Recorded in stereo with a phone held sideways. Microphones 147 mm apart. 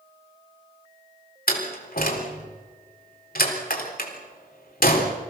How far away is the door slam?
About 3.5 m.